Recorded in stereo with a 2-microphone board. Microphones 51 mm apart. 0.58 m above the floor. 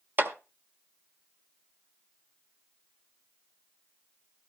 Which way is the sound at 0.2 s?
40° right (ahead or behind).